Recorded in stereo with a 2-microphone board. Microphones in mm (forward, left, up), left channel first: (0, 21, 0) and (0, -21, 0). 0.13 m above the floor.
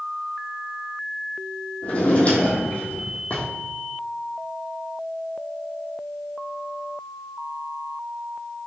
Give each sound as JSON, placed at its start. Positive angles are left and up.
{"t": 1.8, "sound": "a drawer", "side_deg": 35, "distance_m": 1.3}